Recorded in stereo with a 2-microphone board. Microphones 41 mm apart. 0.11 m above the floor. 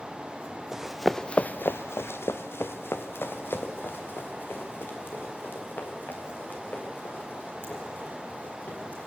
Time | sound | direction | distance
0.7 | running footsteps | 10° right (ahead or behind) | 1.0 m